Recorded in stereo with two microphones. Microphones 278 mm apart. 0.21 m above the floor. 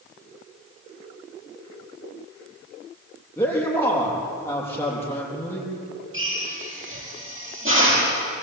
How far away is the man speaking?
About 6.5 m.